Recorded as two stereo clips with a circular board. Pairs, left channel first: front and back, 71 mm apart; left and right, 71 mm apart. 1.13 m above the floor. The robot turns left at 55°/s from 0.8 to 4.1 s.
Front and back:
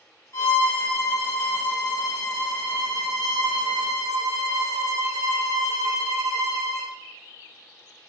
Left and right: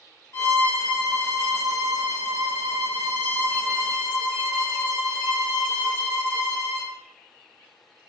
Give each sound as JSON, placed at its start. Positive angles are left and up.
{"t": 0.3, "sound": "a violin", "azimuth_deg": 40, "distance_m": 1.7}